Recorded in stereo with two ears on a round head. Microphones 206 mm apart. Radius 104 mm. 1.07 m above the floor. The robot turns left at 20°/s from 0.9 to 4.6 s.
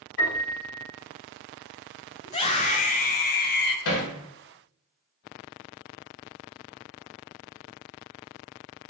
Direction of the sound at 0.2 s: 55° left (ahead or behind).